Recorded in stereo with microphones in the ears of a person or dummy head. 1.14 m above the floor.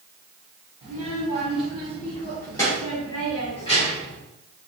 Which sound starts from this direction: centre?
A child speaking, at 0.8 s.